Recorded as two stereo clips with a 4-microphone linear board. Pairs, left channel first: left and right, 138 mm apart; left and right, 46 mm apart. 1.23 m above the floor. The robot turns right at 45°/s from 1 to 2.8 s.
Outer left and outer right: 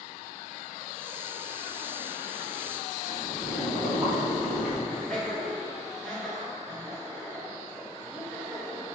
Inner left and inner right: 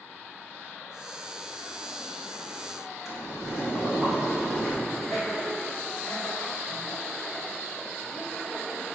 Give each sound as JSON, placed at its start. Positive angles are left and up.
{"t": 3.0, "sound": "boiling", "side_deg": -10, "distance_m": 1.9}
{"t": 4.9, "sound": "laughter", "side_deg": 0, "distance_m": 1.3}